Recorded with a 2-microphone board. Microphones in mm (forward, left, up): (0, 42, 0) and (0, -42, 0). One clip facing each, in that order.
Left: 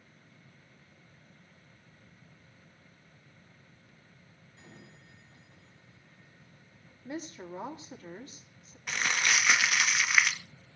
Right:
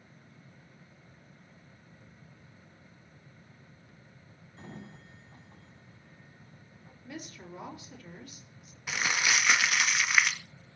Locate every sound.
4.6 s a sliding door: 45° right (ahead or behind), 3 m
7.0 s a woman speaking: 30° left (ahead or behind), 4 m
8.9 s crumpling: 5° right (ahead or behind), 2.0 m